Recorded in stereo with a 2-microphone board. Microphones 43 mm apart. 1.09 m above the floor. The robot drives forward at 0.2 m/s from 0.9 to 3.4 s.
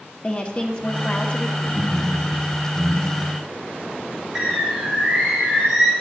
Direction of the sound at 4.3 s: 15° right (ahead or behind).